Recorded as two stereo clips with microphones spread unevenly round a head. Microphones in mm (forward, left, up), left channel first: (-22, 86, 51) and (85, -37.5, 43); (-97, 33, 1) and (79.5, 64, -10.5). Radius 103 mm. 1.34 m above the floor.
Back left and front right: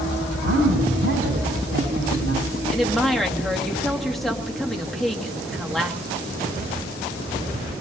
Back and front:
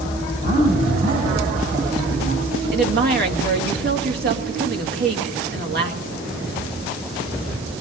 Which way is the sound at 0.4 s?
45° right.